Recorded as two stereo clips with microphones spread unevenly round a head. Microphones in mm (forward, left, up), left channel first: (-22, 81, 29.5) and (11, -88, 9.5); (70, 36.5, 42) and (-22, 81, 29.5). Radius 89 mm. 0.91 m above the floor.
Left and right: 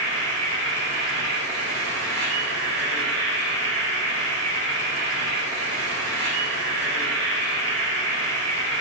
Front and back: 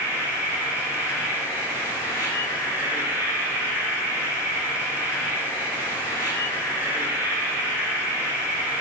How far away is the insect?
About 2 m.